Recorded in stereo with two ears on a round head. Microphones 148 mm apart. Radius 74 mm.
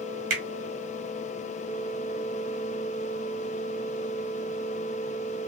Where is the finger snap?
55° right (ahead or behind), 1.3 m.